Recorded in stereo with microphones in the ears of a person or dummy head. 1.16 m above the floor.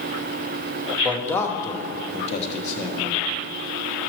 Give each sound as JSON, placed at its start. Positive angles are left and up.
{"t": 1.0, "sound": "a man speaking", "side_deg": 10, "distance_m": 1.1}